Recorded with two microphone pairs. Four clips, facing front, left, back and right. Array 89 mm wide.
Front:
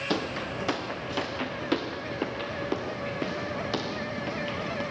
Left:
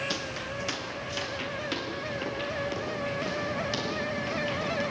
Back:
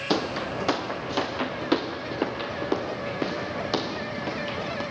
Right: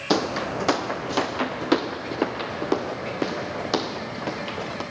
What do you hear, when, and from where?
0.1 s footsteps: 110° right, 1.0 m